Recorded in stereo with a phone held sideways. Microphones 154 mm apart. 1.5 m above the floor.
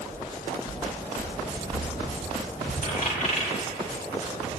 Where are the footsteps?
60° left (ahead or behind), 5 m; by 2.7 s 35° left (ahead or behind), 4.5 m.